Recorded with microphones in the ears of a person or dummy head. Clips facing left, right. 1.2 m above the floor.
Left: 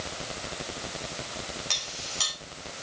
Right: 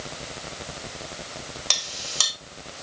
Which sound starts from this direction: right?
A clink, at 1.7 s.